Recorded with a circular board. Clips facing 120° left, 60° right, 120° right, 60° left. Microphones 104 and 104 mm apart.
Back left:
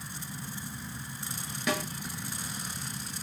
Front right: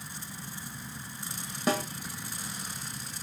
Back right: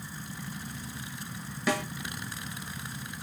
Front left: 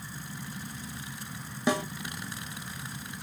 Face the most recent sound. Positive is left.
turn(degrees=-5)